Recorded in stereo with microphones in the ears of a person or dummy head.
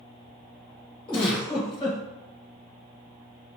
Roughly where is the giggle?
Left.